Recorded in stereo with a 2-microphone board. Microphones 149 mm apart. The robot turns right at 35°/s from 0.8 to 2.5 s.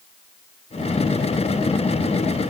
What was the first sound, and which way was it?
Only background noise.